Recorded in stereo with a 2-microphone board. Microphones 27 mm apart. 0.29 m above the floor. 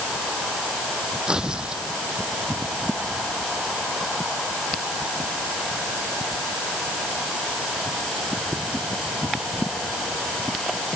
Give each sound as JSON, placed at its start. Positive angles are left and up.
{"t": 1.3, "sound": "tearing paper", "side_deg": -30}